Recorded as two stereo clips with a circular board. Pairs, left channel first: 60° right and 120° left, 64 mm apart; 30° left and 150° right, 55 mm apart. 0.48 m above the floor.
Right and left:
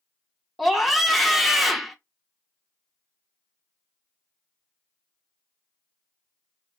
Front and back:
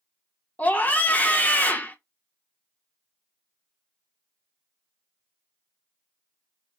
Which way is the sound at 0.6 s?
35° left.